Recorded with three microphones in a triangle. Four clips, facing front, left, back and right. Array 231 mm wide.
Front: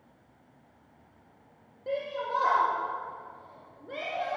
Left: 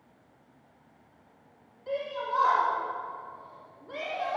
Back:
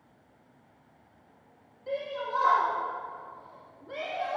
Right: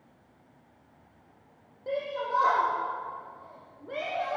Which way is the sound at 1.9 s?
45° right.